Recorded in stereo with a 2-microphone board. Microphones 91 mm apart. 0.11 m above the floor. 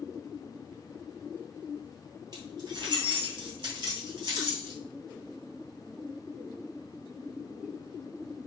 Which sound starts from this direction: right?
Keys jangling, at 2.3 s.